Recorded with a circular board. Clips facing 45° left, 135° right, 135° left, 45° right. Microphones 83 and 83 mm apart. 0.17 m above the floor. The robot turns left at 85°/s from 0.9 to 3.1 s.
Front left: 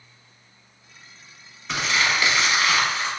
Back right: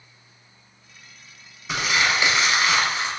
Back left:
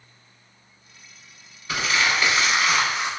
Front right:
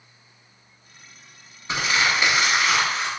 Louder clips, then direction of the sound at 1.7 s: Back right 1 dB, even; 55° right.